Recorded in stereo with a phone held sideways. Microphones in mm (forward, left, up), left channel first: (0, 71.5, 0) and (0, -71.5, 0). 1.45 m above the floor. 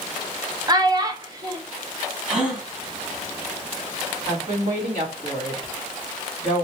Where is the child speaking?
25° right (ahead or behind), 0.7 m.